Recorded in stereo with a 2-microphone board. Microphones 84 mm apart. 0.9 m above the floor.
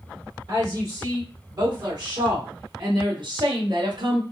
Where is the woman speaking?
50° right (ahead or behind), 3 m; by 4.2 s 65° right (ahead or behind), 1.6 m.